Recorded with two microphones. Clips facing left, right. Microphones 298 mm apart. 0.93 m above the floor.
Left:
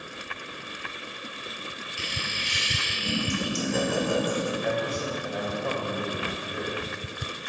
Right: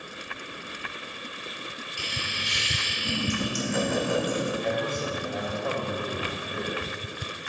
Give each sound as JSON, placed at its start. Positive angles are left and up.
{"t": 2.0, "sound": "laughter", "side_deg": 25, "distance_m": 2.0}
{"t": 4.6, "sound": "a man speaking", "side_deg": 10, "distance_m": 3.0}